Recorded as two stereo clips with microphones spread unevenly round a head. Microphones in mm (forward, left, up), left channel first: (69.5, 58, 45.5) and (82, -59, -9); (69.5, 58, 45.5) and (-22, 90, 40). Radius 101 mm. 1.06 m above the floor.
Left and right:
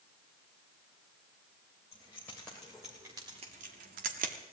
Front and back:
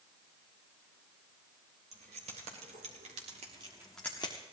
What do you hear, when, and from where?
1.9 s keys jangling: 170° left, 3 m; by 4.3 s 80° right, 1.4 m